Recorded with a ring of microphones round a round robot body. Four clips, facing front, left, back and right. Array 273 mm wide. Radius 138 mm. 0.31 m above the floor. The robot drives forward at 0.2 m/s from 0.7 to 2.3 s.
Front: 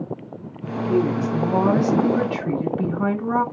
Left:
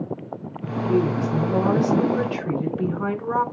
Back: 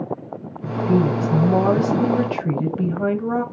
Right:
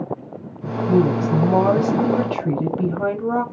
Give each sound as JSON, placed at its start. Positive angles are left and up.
{"t": 0.7, "sound": "a woman speaking", "azimuth_deg": -110, "distance_m": 1.6}